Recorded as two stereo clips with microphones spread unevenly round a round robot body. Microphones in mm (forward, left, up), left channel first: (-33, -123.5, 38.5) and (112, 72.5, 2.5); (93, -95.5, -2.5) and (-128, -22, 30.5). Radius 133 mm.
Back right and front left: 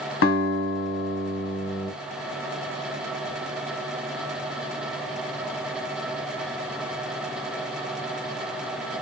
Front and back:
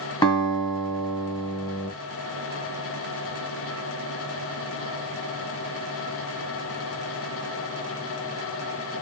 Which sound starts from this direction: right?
A guitar, at 0.2 s.